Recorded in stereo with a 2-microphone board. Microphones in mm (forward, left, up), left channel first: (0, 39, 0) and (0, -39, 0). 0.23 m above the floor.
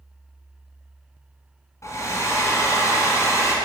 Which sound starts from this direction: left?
A hair dryer, at 1.8 s.